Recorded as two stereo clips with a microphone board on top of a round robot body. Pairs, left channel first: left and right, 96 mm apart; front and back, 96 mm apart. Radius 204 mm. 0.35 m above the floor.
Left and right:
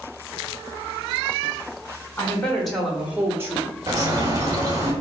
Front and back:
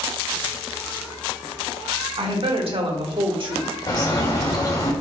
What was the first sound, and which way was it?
A woman speaking, 160° left.